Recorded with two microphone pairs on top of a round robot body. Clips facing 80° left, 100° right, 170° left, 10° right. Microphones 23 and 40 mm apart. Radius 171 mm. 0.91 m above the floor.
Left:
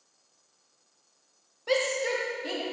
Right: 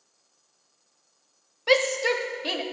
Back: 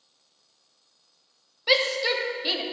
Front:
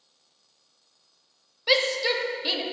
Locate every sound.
1.7 s a shout: 105° right, 1.1 m